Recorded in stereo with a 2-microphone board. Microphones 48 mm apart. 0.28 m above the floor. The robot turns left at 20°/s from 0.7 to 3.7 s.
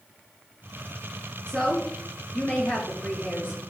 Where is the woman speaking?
165° left, 4 m; by 3.7 s 120° left, 4 m.